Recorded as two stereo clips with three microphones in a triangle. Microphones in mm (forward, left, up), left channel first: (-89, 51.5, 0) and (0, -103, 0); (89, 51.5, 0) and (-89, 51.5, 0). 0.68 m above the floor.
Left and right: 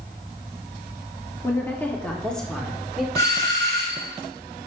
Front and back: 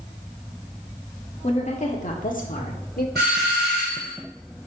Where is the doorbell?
175° right, 3.5 m.